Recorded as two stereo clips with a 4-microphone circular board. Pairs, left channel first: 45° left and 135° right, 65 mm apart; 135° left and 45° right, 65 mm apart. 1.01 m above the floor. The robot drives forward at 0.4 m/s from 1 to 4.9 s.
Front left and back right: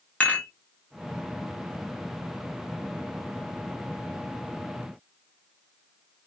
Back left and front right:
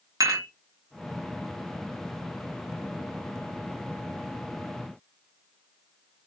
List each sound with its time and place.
0.2 s dishes clattering: 25° right, 1.6 m